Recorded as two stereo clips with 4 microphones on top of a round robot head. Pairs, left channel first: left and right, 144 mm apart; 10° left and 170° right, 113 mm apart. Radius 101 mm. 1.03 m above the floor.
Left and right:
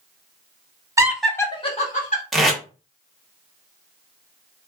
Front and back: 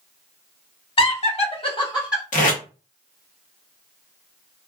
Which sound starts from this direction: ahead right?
Laughter, at 1.0 s.